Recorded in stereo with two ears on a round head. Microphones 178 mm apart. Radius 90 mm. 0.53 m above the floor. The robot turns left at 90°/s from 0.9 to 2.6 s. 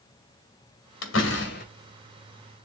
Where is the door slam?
105° left, 2 m; by 1.7 s 45° left, 2 m.